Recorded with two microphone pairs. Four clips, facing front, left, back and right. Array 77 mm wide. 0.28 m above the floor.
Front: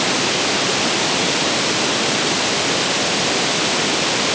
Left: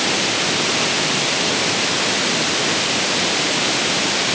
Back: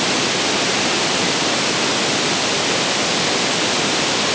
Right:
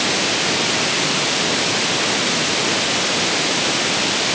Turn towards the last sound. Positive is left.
No sound to turn to.